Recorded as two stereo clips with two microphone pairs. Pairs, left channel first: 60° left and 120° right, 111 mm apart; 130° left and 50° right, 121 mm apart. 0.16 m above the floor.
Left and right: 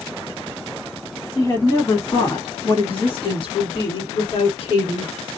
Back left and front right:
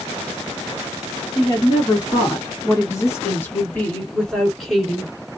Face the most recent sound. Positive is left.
turn(degrees=35)